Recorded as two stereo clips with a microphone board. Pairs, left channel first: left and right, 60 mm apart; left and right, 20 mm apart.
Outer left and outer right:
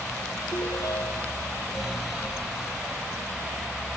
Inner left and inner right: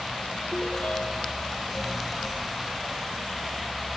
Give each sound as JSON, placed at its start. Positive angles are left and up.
{"t": 0.5, "sound": "a ringtone", "side_deg": 75}